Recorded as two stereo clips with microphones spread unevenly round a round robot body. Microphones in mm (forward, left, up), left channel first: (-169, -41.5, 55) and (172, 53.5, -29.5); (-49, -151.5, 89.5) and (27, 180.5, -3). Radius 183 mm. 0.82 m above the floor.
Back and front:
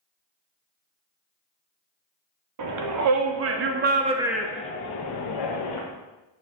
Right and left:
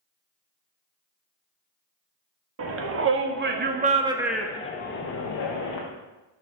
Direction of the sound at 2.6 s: 40° left.